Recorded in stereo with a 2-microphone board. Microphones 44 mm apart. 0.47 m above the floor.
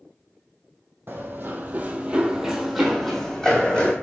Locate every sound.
1.1 s running footsteps: 55° right (ahead or behind), 0.7 m; by 3.9 s 25° left (ahead or behind), 1.1 m